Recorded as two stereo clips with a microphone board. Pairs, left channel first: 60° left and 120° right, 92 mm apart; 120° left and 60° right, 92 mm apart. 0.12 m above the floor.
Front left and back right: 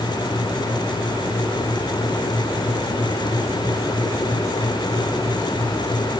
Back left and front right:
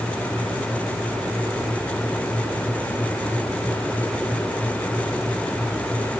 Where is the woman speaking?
No woman speaking in this recording.